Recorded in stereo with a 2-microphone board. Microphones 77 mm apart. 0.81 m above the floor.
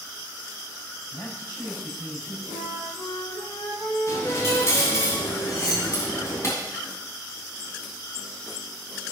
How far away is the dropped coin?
About 3 m.